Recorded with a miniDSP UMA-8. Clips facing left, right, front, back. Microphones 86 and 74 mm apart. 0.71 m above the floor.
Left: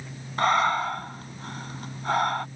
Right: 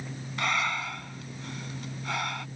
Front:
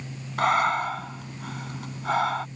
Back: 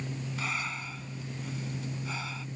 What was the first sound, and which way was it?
Breathing, 35° left.